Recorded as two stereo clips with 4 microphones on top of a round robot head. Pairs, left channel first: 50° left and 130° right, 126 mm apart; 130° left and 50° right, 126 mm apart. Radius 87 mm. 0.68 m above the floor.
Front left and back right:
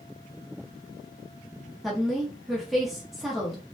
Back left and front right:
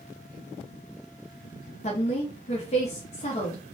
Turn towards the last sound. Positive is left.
turn(degrees=140)